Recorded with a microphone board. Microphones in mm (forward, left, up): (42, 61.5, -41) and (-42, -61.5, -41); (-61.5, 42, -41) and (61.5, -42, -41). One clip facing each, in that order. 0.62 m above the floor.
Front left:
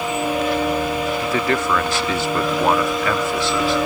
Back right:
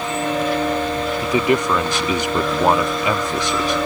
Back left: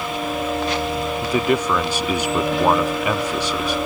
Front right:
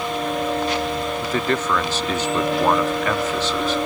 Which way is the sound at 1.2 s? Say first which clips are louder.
Back right 6 dB, back left 4 dB; 160° right.